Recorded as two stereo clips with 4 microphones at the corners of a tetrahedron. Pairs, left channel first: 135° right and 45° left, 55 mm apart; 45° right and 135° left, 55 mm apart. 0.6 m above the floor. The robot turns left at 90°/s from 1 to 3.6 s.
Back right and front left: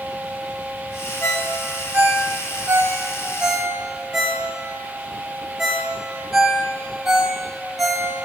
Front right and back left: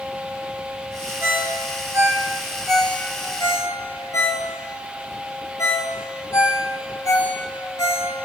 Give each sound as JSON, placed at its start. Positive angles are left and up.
{"t": 1.2, "sound": "a ringtone", "azimuth_deg": 175, "distance_m": 1.7}